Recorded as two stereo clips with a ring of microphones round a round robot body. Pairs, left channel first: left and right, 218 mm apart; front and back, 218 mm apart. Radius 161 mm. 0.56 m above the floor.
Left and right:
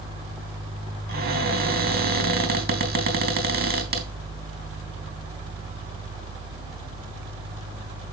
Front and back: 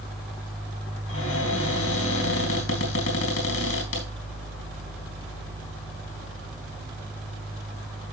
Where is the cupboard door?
45° right, 3.5 m.